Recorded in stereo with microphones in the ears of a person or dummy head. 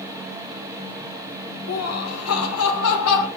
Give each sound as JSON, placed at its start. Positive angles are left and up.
{"t": 1.7, "sound": "laughter", "side_deg": 75, "distance_m": 0.8}